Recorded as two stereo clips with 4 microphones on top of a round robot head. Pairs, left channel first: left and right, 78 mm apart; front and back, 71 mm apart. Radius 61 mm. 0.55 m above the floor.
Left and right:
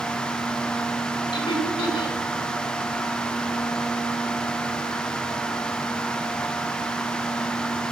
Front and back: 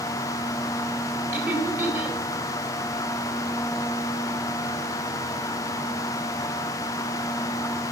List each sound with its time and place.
1.3 s laughter: 120° left, 2 m